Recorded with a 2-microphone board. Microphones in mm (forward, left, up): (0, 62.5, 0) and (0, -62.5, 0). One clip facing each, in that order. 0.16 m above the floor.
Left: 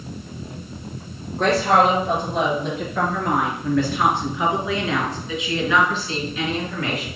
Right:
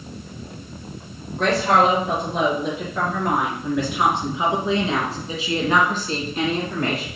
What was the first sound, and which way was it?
A woman speaking, centre (ahead or behind).